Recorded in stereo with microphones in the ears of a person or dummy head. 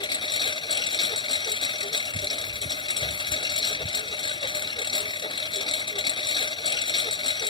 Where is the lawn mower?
25° left (ahead or behind).